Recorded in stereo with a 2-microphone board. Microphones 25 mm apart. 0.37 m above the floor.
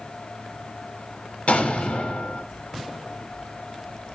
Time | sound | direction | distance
1.5 | an explosion | 70° left (ahead or behind) | 0.9 m